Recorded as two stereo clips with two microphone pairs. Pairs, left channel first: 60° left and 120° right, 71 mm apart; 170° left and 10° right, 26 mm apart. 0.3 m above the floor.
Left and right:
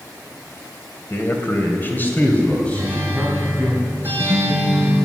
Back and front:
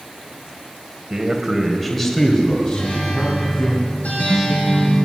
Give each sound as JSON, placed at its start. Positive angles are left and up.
{"t": 1.1, "sound": "a man speaking", "azimuth_deg": 45, "distance_m": 1.8}
{"t": 2.7, "sound": "a guitar", "azimuth_deg": 180, "distance_m": 5.0}